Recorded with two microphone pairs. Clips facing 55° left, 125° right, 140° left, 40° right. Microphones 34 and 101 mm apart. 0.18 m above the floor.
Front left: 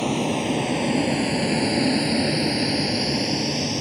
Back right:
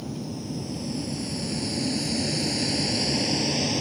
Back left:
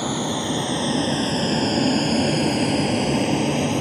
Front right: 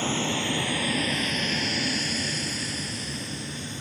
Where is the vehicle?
65° left; by 3.8 s 145° left.